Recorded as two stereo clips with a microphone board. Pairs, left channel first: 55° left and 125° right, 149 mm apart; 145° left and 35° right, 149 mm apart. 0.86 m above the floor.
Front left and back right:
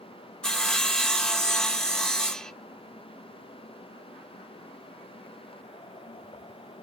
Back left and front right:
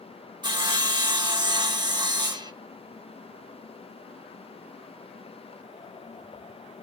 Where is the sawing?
25° right, 1.1 m.